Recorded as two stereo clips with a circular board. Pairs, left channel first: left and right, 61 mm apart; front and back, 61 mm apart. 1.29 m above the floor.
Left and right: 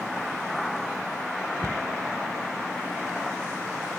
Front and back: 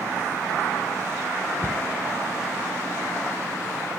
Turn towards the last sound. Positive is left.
turn(degrees=-55)